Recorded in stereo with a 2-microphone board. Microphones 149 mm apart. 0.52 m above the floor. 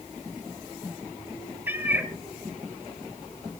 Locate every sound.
1.7 s a cat meowing: 15° right (ahead or behind), 1.0 m